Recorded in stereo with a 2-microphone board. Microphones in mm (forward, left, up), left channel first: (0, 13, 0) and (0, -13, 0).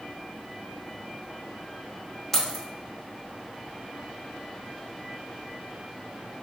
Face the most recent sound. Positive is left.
turn(degrees=15)  # may be behind; listen again after turning